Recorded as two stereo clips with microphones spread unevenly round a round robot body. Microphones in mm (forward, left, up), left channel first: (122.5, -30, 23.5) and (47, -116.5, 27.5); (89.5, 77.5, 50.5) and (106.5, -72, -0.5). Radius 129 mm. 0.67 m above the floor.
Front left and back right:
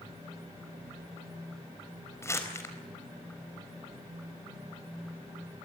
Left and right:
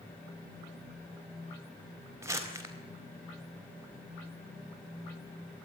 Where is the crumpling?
15° right, 4.5 m.